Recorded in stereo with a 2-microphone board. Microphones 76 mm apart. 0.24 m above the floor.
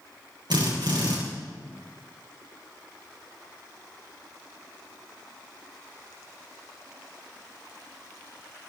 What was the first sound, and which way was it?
A drill, 75° right (ahead or behind).